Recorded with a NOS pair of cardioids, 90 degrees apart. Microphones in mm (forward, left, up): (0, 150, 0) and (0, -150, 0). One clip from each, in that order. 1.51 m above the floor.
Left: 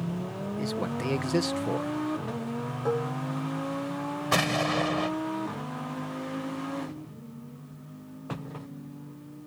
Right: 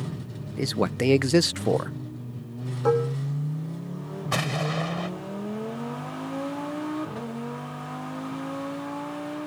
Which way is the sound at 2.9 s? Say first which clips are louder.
Right 7 dB; 45° right.